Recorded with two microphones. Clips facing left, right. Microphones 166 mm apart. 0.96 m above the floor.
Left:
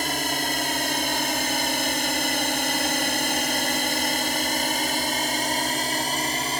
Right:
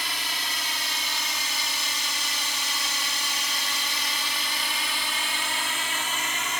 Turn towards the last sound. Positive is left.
turn(degrees=35)  # may be behind; listen again after turning